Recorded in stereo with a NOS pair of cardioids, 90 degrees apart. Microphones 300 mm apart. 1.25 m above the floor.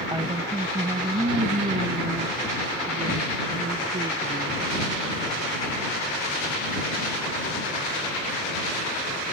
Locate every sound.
0.1 s a woman speaking: 10° right; by 4.6 s 25° right